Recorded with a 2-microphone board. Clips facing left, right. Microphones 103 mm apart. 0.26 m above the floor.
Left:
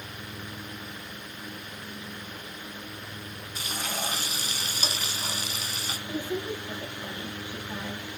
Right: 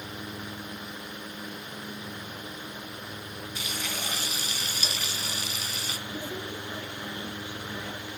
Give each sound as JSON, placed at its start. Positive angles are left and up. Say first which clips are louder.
{"t": 3.5, "sound": "frying", "louder": "left 4 dB", "side_deg": 40, "distance_m": 1.8}
{"t": 6.1, "sound": "a woman speaking", "louder": "left 7 dB", "side_deg": 45, "distance_m": 7.0}